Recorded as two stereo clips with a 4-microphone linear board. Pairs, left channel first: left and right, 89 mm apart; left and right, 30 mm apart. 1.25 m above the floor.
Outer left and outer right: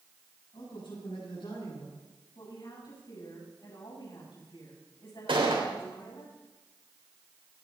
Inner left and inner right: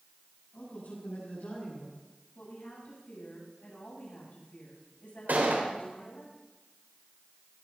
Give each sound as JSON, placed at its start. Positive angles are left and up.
{"t": 0.5, "sound": "a man speaking", "side_deg": 70, "distance_m": 8.5}
{"t": 2.4, "sound": "a woman speaking", "side_deg": 65, "distance_m": 7.5}
{"t": 5.3, "sound": "a gunshot", "side_deg": -80, "distance_m": 3.5}